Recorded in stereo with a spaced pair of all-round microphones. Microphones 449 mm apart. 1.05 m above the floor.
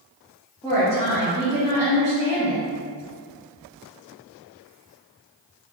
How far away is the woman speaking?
About 1.6 m.